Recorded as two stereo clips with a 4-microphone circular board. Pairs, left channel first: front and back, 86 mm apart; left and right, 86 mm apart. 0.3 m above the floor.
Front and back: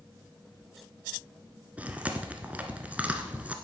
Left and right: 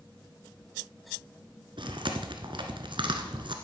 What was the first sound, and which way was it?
Chewing, 105° right.